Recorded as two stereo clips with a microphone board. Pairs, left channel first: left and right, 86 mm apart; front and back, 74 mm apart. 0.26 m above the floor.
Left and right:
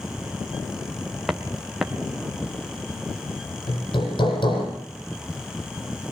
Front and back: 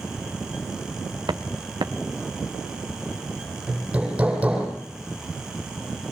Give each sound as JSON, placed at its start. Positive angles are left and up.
{"t": 1.3, "sound": "footsteps", "azimuth_deg": -175, "distance_m": 1.8}
{"t": 3.7, "sound": "hammering", "azimuth_deg": 105, "distance_m": 8.5}